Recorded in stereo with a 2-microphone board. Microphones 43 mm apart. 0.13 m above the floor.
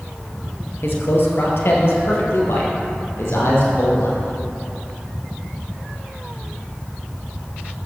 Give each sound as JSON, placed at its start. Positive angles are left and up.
{"t": 0.8, "sound": "a man speaking", "side_deg": 60, "distance_m": 2.5}